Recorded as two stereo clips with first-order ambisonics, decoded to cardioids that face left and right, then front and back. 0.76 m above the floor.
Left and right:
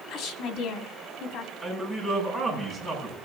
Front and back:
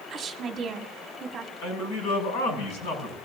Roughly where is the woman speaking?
Behind left.